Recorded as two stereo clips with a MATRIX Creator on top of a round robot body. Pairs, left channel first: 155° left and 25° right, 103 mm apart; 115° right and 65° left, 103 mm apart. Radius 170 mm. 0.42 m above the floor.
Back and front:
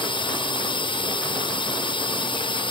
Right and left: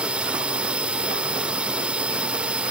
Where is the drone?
145° left.